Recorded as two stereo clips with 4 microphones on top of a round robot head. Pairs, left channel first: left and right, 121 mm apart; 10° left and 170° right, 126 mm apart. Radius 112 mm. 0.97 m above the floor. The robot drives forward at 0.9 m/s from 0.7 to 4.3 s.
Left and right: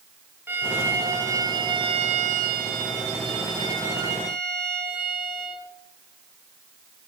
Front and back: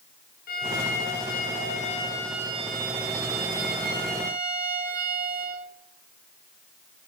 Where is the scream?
I don't hear a scream.